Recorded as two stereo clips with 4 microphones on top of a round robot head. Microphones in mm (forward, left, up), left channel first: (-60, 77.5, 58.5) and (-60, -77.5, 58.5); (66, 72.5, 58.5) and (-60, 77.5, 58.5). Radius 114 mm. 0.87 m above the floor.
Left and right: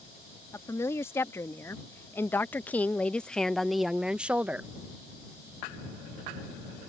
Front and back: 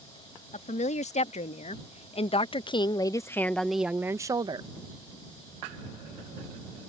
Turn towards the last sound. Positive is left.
turn(degrees=-165)